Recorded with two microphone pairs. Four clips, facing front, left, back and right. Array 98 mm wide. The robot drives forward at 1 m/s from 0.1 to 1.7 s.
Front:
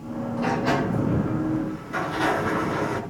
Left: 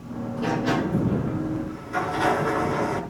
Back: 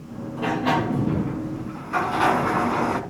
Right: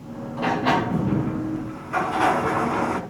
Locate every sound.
0.4 s a sliding door: 95° right, 1.6 m; by 3.0 s 140° right, 2 m